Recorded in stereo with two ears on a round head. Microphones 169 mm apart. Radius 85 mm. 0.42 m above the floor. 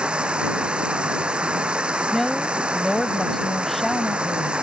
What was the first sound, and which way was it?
Running water, 5° right (ahead or behind).